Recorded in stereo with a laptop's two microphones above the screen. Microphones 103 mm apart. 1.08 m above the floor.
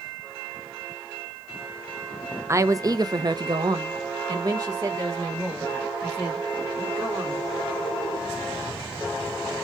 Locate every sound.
2.5 s a woman speaking: 25° right (ahead or behind), 0.7 m; by 7.5 s 30° right (ahead or behind), 2.5 m